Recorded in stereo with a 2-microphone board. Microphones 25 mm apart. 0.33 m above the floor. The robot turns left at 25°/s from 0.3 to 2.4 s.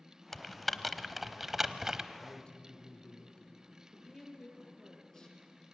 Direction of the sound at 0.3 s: 15° left (ahead or behind).